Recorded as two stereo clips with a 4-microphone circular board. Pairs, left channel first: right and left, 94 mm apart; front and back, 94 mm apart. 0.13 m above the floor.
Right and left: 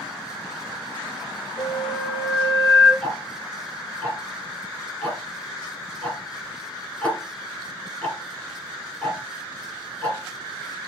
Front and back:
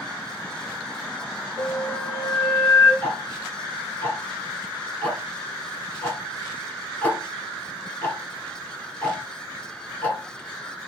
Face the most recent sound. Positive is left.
turn(degrees=-40)